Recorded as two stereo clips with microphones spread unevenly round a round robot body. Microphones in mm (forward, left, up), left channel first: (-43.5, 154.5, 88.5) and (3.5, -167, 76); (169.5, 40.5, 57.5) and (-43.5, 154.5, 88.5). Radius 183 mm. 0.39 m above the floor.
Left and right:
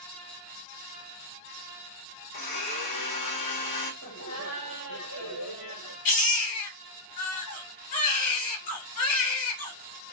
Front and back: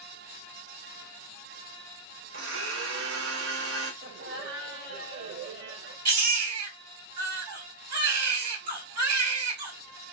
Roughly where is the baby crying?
Behind left.